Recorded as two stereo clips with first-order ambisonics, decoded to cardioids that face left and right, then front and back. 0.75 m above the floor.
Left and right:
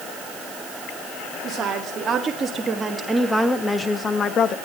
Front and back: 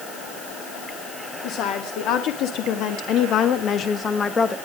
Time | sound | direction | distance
1.4 | a woman speaking | 30° right | 2 m